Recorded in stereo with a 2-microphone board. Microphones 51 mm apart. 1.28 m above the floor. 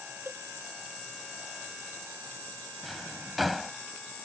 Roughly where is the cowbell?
Right.